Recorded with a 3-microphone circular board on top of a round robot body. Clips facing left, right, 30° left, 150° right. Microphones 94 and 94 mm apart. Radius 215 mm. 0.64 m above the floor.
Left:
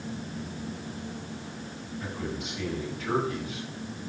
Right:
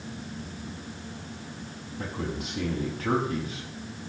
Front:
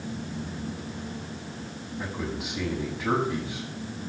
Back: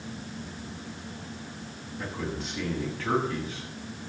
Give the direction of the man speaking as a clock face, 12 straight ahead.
2 o'clock.